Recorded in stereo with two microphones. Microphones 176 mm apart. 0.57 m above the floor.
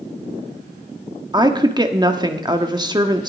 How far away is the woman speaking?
About 1.2 m.